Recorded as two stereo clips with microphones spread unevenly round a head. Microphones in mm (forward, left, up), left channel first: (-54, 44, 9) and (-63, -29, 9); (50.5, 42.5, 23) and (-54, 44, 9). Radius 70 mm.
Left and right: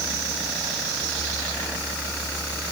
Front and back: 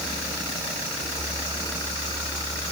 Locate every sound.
Only background noise.